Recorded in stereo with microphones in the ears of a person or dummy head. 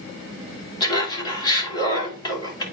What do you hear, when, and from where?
0.8 s laughter: 25° left (ahead or behind), 3 m